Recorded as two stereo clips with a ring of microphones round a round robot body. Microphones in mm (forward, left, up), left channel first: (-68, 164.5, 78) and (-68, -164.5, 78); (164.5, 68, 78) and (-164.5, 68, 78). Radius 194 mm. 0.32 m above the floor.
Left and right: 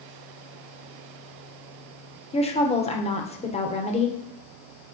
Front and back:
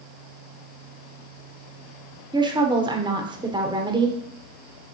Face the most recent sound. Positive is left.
turn(degrees=125)